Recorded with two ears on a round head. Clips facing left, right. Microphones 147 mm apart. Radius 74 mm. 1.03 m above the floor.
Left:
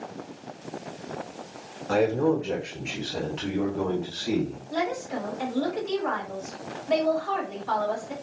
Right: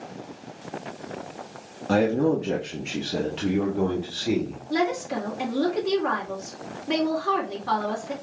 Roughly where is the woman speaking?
Right.